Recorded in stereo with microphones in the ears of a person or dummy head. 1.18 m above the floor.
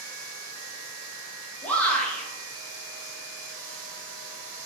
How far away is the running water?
About 1.4 m.